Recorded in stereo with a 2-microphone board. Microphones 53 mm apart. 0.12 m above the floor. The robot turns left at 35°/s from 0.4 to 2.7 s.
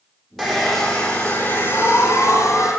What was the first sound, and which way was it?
A hair dryer, straight behind.